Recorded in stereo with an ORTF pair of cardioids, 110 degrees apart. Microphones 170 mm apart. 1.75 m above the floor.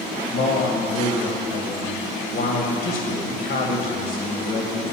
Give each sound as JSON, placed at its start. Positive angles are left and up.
{"t": 0.3, "sound": "a man speaking", "azimuth_deg": 65, "distance_m": 1.8}